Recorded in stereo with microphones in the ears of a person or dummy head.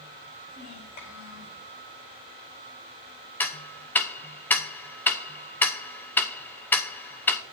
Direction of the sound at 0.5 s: 50° left (ahead or behind).